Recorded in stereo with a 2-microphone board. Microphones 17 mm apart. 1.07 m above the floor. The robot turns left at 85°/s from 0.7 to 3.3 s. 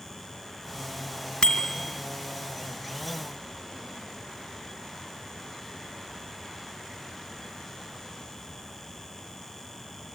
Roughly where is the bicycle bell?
Left.